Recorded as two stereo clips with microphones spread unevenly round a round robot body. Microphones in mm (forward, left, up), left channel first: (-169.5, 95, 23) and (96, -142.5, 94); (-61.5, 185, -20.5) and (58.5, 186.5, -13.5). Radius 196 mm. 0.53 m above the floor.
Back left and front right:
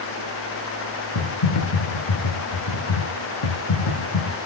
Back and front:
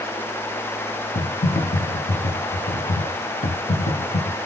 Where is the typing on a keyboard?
165° left, 1.7 m.